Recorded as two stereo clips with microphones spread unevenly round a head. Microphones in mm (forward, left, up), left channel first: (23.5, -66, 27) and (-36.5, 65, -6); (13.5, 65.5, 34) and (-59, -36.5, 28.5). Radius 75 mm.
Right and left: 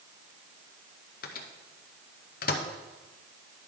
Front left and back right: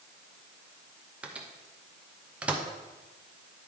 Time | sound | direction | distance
1.2 | a microwave | 50° right | 0.7 m